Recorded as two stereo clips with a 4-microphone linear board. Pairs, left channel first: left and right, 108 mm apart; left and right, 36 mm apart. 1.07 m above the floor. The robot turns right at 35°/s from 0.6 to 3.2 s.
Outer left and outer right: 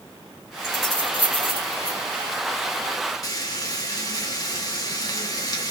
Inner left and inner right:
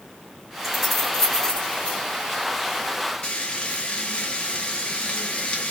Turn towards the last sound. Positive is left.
turn(degrees=40)  # may be behind; listen again after turning